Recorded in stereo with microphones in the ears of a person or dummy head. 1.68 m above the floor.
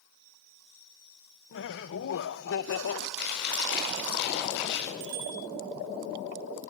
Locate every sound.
1.5 s laughter: 65° left (ahead or behind), 1.7 m
3.2 s chewing: 60° left (ahead or behind), 8 m
5.0 s a bicycle bell: 70° right (ahead or behind), 7.5 m